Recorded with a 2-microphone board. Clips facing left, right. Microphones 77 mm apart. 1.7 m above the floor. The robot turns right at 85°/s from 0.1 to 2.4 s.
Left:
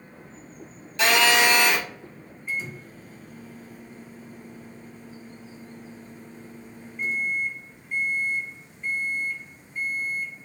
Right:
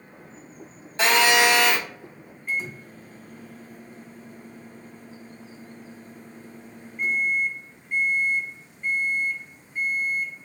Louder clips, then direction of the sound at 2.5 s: Right 2 dB; 50° right (ahead or behind).